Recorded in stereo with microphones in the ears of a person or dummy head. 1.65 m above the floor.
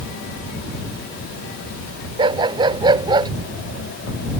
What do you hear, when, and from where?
2.2 s a dog barking: 25° right (ahead or behind)